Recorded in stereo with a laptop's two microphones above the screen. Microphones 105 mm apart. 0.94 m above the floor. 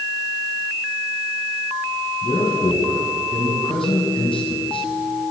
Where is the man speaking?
55° left (ahead or behind), 6 m.